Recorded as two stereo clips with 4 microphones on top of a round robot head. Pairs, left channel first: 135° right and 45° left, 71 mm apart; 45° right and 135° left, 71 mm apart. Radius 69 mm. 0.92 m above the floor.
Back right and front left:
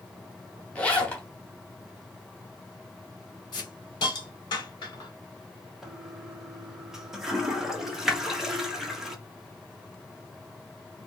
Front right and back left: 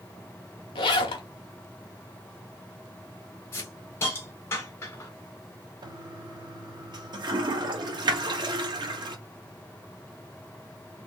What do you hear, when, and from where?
0.8 s a zipper: 55° right, 0.8 m
3.5 s a hiss: 105° right, 2 m
5.8 s a toilet flushing: 130° left, 1.0 m